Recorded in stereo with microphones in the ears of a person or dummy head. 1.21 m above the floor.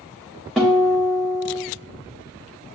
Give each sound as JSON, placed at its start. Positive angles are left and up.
{"t": 0.6, "sound": "a guitar", "side_deg": -5, "distance_m": 0.6}